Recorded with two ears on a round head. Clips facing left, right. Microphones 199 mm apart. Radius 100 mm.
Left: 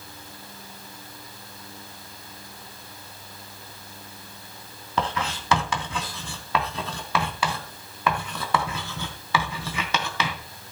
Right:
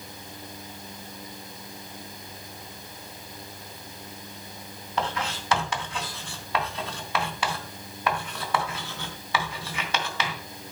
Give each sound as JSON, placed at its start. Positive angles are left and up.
{"t": 5.0, "sound": "writing", "side_deg": 75, "distance_m": 2.5}